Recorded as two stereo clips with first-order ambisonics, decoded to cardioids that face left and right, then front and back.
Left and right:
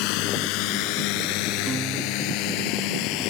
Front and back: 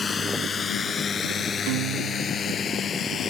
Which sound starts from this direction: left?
A drone, at 0.0 s.